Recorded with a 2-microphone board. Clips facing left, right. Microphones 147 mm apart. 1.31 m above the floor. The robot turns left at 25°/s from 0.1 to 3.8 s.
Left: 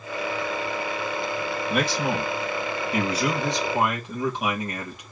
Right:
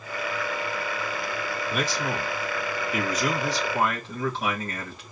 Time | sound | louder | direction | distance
1.7 | a man speaking | left 4 dB | 70° left | 2.5 m